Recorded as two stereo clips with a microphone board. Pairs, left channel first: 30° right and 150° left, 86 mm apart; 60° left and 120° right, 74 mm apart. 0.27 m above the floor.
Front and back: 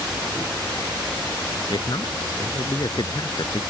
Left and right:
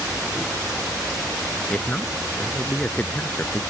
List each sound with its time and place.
1.7 s a man speaking: 10° right